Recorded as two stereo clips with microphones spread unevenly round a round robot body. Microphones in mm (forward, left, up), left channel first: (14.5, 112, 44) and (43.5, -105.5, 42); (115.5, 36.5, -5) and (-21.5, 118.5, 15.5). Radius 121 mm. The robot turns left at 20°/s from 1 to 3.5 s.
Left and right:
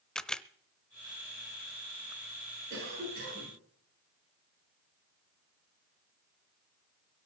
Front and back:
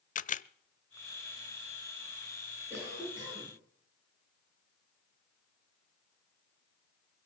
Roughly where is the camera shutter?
Ahead.